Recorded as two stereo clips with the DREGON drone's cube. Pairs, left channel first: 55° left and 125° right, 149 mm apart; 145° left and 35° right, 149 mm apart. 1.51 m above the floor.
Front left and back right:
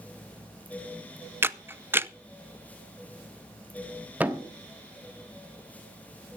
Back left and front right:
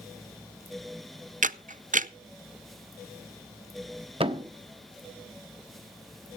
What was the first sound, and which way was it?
A camera shutter, 50° right.